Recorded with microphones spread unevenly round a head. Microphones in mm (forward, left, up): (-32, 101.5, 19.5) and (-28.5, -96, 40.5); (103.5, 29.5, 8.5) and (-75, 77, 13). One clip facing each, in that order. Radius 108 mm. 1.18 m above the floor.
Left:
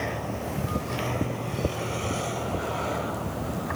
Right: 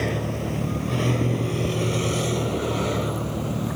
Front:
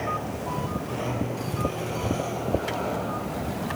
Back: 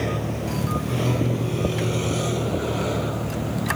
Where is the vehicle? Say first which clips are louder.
Right 5 dB, back 4 dB; 135° right.